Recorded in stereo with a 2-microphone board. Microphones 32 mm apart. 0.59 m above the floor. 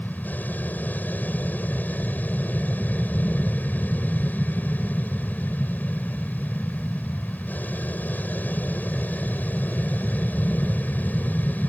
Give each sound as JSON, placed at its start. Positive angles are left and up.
{"t": 0.0, "sound": "an aircraft", "side_deg": 60}